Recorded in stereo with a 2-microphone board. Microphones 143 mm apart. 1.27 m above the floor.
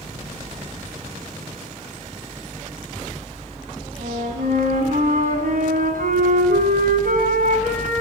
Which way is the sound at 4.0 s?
75° right (ahead or behind).